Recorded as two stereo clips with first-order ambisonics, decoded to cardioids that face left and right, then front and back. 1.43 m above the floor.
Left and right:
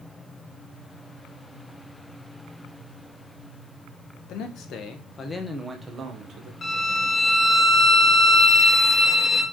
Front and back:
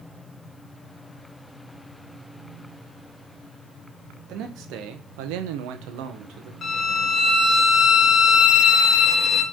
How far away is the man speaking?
About 1.0 m.